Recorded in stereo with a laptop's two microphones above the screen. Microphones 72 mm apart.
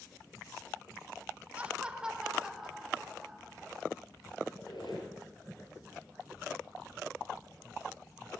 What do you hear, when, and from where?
1.6 s laughter: 20° right (ahead or behind), 0.9 m; by 3.8 s 5° right (ahead or behind), 2.5 m
4.5 s a squeak: 75° left (ahead or behind), 9.5 m